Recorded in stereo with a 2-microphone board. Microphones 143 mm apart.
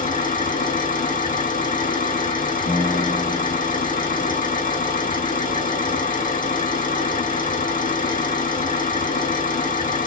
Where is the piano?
70° left (ahead or behind), 3 m.